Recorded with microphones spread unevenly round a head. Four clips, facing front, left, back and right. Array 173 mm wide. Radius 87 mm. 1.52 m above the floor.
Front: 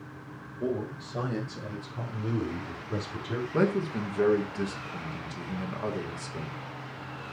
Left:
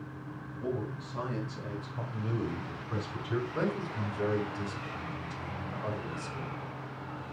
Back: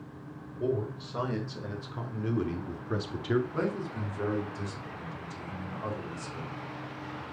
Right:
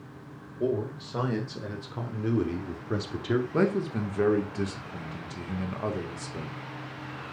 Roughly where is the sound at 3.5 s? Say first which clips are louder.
Right 7 dB, front 6 dB; ahead right.